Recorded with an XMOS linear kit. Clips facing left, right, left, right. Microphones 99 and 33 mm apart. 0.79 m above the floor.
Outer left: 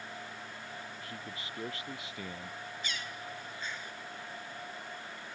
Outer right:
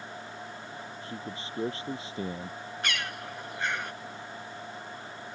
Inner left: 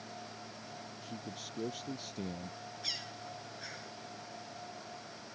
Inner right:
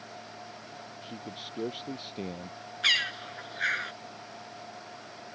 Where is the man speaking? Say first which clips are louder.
Outer right 5 dB, inner right 4 dB; 30° right (ahead or behind).